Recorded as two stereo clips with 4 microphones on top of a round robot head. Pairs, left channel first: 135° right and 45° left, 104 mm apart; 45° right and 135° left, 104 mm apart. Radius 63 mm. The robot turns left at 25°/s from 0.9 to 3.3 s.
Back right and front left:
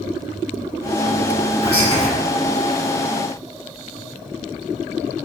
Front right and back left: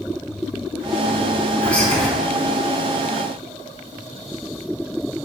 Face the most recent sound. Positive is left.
turn(degrees=-160)